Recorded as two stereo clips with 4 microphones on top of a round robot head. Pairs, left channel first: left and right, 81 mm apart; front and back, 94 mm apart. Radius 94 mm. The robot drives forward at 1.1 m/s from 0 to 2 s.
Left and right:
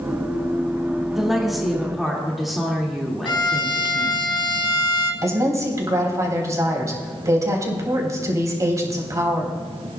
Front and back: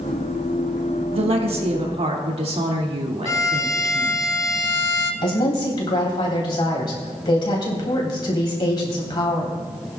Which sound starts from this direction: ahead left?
A violin, at 3.2 s.